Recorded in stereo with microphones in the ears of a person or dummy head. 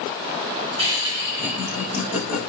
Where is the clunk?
No clunk in this recording.